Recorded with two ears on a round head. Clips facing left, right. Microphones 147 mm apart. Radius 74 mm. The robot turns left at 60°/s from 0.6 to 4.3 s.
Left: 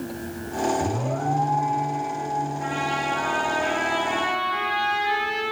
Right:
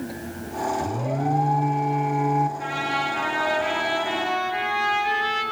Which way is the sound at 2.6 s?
50° right.